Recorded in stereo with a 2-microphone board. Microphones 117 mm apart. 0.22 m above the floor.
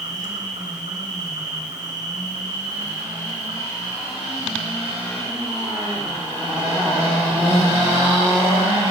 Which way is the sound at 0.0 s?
85° right.